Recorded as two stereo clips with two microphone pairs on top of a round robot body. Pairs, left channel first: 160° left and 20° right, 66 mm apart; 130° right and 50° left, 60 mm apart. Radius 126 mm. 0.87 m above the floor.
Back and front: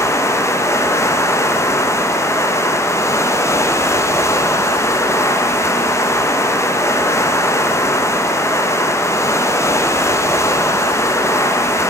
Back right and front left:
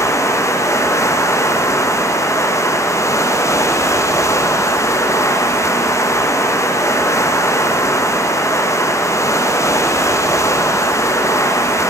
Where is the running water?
160° right, 0.8 m.